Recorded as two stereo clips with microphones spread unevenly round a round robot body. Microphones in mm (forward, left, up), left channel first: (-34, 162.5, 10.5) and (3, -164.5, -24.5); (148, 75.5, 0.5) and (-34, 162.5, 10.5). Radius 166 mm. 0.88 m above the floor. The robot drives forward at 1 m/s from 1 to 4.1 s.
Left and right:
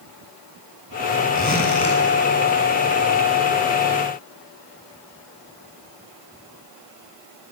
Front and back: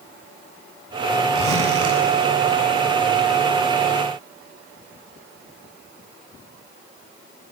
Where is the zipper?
165° left, 7 m.